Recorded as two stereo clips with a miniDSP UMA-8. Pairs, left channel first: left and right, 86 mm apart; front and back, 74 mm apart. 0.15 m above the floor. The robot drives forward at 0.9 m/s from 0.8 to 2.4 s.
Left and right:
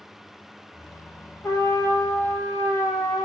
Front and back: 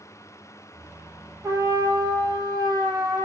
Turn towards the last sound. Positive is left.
turn(degrees=150)